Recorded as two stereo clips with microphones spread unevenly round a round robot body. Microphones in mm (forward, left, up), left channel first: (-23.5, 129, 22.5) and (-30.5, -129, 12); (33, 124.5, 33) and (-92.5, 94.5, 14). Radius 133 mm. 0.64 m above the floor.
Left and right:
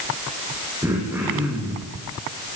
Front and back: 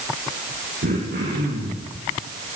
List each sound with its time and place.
0.8 s throat clearing: 170° right, 6.5 m